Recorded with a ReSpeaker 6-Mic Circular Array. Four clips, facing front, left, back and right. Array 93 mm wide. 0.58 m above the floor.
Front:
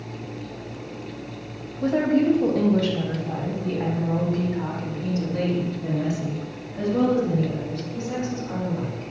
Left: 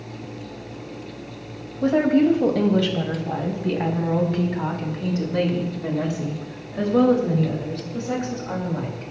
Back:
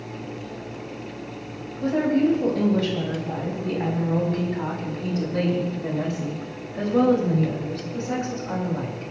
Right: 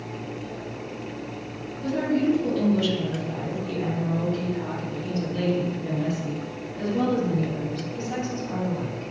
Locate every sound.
1.8 s a woman speaking: 80° left, 3.5 m; by 9.1 s 120° left, 9 m